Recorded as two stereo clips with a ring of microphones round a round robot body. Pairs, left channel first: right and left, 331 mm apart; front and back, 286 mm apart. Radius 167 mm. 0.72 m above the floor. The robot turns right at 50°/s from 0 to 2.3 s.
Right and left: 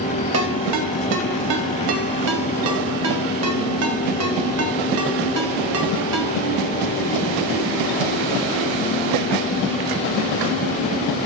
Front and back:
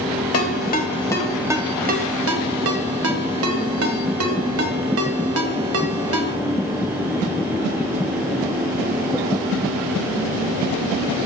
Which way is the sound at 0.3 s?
40° left.